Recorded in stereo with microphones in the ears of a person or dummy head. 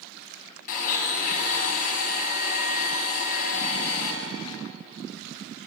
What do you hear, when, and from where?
0.7 s a blender: 50° left (ahead or behind), 4.5 m